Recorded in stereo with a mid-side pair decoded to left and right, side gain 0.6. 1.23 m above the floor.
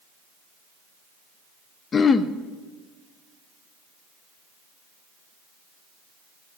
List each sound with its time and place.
1.9 s throat clearing: 35° left, 0.8 m